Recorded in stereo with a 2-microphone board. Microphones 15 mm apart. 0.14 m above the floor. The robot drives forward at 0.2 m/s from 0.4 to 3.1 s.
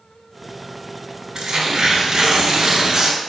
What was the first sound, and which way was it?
Tearing paper, 55° right (ahead or behind).